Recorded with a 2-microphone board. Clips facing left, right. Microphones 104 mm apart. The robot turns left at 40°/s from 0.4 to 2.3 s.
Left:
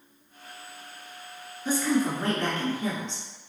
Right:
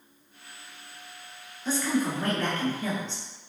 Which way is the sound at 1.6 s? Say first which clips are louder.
Left 2 dB; 15° left (ahead or behind).